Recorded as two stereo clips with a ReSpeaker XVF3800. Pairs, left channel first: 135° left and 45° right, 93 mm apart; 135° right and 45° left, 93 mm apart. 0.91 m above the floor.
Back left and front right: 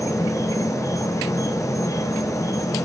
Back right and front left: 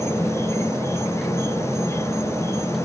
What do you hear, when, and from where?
0.0 s an insect: 175° left, 0.7 m